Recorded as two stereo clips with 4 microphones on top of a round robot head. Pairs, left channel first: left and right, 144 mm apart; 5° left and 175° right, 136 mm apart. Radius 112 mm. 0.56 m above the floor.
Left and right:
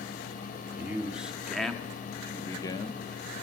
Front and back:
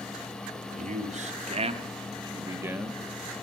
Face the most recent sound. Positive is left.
turn(degrees=100)